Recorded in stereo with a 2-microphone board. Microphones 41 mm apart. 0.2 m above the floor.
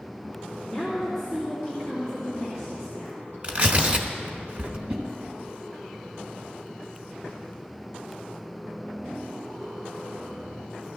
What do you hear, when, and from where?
0.6 s a woman speaking: 15° left (ahead or behind), 3 m
3.4 s tearing paper: 30° right (ahead or behind), 1.1 m
4.9 s a whoosh: 30° right (ahead or behind), 1.8 m